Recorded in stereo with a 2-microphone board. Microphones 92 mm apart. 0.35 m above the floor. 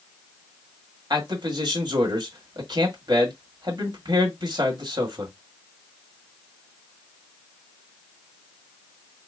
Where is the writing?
No writing in this recording.